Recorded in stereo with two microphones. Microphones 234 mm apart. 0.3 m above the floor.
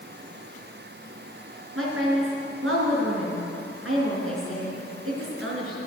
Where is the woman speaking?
65° right (ahead or behind), 4 m.